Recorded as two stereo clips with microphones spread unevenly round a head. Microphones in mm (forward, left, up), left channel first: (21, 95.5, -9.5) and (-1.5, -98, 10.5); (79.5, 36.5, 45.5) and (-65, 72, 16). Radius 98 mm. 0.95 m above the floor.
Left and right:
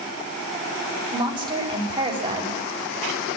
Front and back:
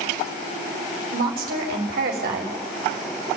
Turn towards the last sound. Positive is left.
turn(degrees=-165)